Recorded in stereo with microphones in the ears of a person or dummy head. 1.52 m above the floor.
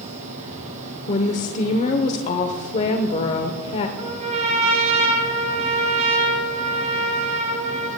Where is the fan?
40° right (ahead or behind), 3.5 m.